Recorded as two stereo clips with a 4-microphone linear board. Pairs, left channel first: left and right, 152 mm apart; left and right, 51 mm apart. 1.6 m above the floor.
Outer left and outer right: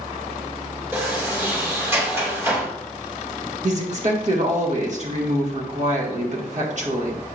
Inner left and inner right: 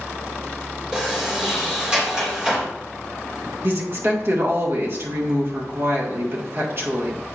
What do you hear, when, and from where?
0.9 s a sliding door: 15° right (ahead or behind), 2.5 m
3.6 s a woman speaking: 50° right (ahead or behind), 1.8 m